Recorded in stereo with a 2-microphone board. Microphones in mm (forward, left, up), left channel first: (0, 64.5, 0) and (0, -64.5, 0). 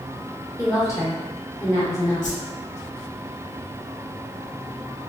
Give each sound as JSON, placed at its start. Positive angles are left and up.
{"t": 0.6, "sound": "a woman speaking", "side_deg": 25, "distance_m": 1.0}
{"t": 2.2, "sound": "a whoosh", "side_deg": 80, "distance_m": 0.6}